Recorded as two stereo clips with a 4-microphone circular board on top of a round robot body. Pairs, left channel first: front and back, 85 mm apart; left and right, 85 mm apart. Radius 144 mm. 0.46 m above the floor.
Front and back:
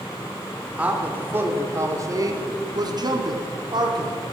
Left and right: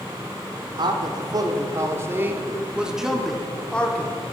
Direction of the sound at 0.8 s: 110° right.